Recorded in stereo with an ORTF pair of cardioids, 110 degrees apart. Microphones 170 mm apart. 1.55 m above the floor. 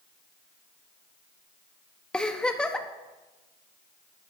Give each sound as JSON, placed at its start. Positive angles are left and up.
{"t": 2.1, "sound": "a giggle", "azimuth_deg": 5, "distance_m": 1.0}